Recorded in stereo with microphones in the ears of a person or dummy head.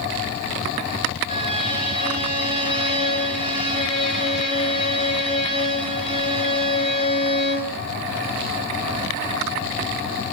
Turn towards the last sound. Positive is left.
turn(degrees=30)  # may be behind; listen again after turning